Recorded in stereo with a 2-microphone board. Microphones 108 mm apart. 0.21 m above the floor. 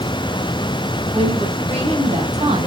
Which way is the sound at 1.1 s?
65° right (ahead or behind).